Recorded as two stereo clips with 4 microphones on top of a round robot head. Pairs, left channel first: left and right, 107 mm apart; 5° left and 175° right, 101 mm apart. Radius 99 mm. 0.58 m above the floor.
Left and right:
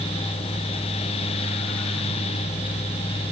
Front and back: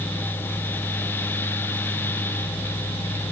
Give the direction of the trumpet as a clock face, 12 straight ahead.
I don't hear a trumpet.